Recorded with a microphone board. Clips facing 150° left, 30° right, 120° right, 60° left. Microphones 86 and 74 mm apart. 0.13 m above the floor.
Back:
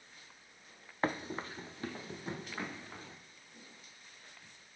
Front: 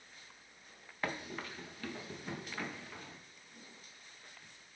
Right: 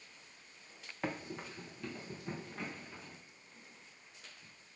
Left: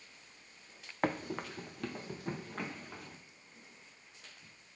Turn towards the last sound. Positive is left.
turn(degrees=85)